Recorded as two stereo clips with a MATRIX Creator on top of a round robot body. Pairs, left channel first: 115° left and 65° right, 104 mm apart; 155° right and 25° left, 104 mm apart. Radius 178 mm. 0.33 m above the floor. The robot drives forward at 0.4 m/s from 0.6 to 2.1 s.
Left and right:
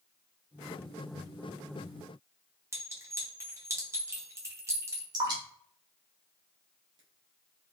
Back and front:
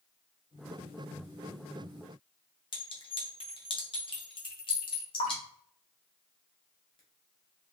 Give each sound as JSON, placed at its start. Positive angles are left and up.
{"t": 2.7, "sound": "a clink", "azimuth_deg": -125, "distance_m": 1.1}
{"t": 5.1, "sound": "dripping", "azimuth_deg": -115, "distance_m": 0.8}